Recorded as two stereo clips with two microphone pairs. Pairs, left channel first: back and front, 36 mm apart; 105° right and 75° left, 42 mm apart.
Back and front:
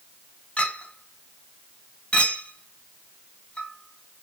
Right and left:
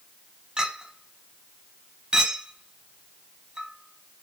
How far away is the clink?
About 0.8 m.